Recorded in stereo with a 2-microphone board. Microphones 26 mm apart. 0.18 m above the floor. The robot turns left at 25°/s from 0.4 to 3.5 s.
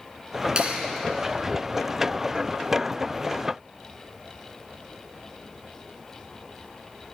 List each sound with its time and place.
0.6 s a clap: 35° right (ahead or behind), 2.0 m; by 0.8 s 40° right (ahead or behind), 2.0 m